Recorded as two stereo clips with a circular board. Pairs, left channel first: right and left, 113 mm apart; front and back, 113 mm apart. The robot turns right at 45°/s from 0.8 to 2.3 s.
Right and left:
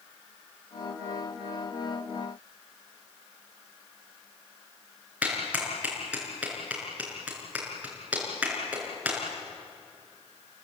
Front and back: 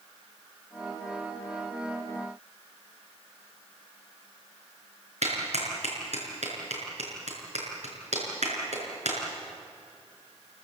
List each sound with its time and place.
5.2 s a clap: 170° left, 5.5 m